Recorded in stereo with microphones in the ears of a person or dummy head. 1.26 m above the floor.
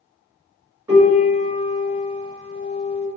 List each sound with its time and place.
0.9 s a piano: 15° right (ahead or behind), 1.6 m